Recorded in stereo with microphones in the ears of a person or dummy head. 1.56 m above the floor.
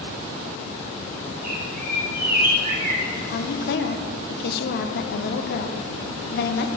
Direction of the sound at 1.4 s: 45° right (ahead or behind).